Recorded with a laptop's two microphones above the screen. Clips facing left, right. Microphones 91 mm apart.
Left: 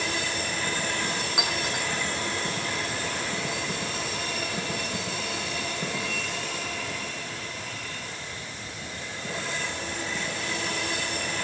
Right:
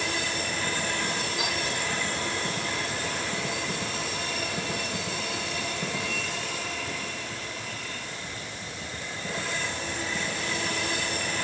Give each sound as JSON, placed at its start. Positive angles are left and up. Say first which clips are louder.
{"t": 1.4, "sound": "a clink", "louder": "left 1 dB", "side_deg": 80, "distance_m": 7.5}